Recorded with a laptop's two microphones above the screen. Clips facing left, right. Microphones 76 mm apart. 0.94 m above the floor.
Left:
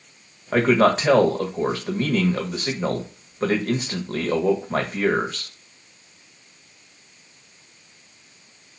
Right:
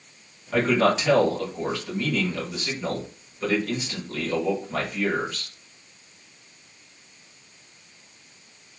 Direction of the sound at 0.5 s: 45° left (ahead or behind).